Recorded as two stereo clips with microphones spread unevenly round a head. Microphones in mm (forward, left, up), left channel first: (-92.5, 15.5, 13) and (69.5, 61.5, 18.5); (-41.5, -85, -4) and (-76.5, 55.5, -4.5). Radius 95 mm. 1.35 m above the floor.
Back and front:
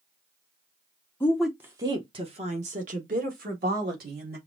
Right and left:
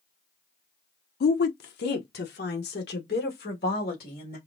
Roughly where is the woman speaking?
Right.